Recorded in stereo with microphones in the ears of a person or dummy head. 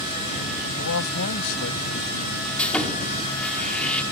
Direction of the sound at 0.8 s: 80° left.